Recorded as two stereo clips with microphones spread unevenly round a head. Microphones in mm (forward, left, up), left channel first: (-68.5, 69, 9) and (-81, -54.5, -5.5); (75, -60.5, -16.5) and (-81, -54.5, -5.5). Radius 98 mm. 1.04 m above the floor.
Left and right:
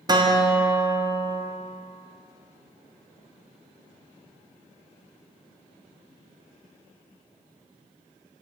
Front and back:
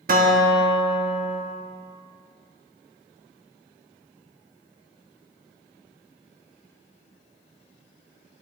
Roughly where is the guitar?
Behind right.